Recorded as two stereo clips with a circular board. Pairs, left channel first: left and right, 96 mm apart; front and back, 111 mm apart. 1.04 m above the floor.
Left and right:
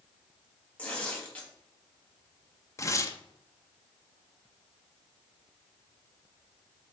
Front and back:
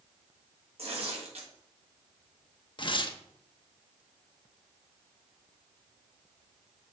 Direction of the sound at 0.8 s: 165° left.